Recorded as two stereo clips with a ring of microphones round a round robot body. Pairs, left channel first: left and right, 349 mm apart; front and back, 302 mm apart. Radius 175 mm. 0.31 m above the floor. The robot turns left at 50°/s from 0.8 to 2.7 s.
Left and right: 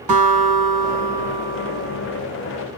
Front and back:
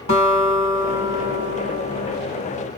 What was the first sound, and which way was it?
A guitar, 70° right.